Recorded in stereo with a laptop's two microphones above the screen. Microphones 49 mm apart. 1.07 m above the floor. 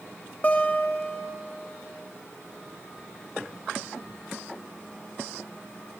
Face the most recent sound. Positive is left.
turn(degrees=35)  # may be behind; listen again after turning